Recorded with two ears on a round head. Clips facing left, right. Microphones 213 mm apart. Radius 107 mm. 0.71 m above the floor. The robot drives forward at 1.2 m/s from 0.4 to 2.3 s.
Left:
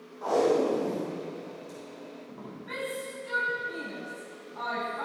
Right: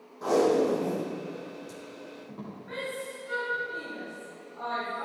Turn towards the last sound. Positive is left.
turn(degrees=75)  # may be behind; listen again after turning